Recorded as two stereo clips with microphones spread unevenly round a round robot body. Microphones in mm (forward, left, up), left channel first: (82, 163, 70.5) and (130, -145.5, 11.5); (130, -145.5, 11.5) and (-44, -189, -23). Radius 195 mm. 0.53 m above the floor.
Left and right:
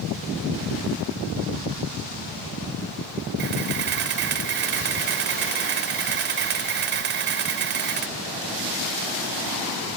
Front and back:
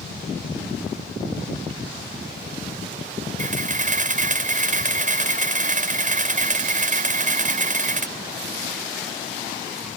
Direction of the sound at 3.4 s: 130° right.